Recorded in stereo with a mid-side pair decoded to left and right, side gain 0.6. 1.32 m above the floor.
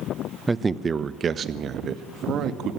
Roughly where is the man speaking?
Ahead.